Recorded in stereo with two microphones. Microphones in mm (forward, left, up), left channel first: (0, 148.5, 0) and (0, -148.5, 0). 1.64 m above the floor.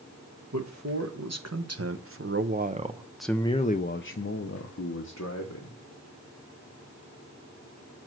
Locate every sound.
0.5 s a man speaking: 65° right (ahead or behind), 1.5 m; by 5.8 s 70° left (ahead or behind), 1.4 m